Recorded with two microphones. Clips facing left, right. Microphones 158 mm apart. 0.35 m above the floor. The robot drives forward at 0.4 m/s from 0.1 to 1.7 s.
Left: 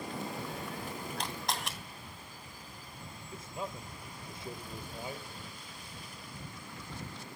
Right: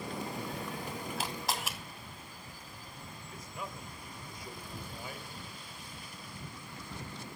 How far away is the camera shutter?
About 2 m.